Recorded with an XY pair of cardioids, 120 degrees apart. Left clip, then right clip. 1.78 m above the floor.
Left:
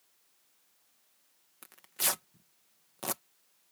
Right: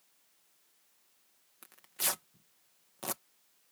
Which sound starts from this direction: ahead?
Tearing paper, at 1.6 s.